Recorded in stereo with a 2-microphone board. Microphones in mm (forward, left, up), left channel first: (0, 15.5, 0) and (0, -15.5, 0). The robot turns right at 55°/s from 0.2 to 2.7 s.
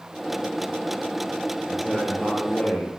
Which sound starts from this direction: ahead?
A man speaking, at 1.7 s.